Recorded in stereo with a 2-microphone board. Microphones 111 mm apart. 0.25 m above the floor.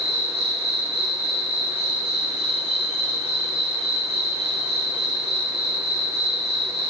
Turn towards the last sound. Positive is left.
turn(degrees=-60)  # may be behind; listen again after turning